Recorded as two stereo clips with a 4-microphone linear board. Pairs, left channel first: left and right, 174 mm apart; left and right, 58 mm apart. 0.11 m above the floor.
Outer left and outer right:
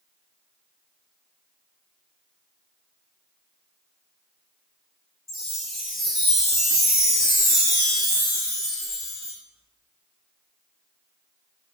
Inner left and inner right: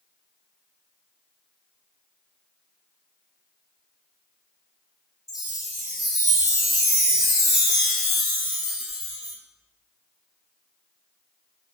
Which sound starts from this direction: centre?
A chime, at 5.3 s.